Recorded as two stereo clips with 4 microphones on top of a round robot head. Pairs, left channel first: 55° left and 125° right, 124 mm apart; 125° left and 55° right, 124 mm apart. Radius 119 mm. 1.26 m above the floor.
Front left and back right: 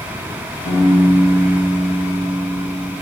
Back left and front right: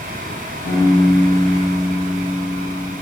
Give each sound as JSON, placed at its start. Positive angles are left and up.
{"t": 0.7, "sound": "a piano", "azimuth_deg": 125, "distance_m": 4.0}